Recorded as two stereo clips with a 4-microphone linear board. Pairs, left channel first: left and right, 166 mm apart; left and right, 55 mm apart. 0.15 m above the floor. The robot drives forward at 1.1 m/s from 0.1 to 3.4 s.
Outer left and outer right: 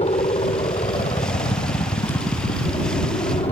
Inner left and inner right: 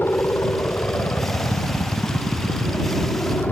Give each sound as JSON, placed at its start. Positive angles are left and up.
{"t": 0.0, "sound": "a helicopter", "side_deg": 40}